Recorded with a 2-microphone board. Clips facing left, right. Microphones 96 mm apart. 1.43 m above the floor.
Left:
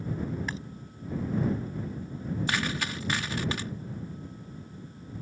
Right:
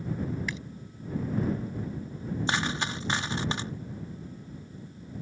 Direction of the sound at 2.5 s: 25° right (ahead or behind).